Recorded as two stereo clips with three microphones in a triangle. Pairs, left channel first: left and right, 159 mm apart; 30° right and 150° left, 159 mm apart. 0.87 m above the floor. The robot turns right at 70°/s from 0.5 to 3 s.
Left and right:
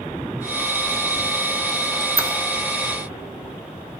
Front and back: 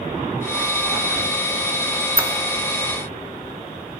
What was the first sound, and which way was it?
A squeak, 170° right.